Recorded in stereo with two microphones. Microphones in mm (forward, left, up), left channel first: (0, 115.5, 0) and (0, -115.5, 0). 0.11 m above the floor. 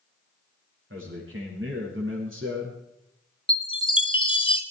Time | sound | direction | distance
0.9 | a man speaking | 60° right (ahead or behind) | 7.5 m
3.5 | a chime | 20° left (ahead or behind) | 1.2 m